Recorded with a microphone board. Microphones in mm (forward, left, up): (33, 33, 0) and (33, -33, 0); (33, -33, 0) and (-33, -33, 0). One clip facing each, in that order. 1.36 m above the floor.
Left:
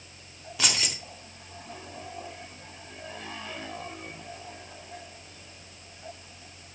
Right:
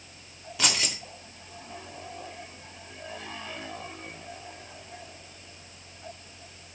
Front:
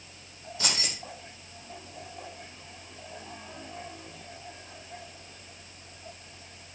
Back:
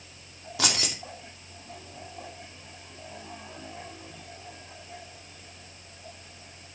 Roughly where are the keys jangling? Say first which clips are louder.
Right 1 dB, back 4 dB; behind.